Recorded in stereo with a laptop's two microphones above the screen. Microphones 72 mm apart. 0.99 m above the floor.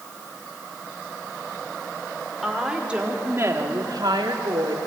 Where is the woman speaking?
Centre (ahead or behind), 2.5 m; by 4.8 s 80° right, 2.5 m.